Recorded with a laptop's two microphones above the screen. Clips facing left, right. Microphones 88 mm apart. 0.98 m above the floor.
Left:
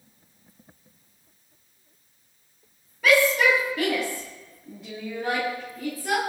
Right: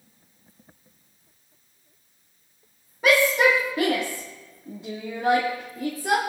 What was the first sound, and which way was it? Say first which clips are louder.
A shout: right 1 dB; 35° right (ahead or behind).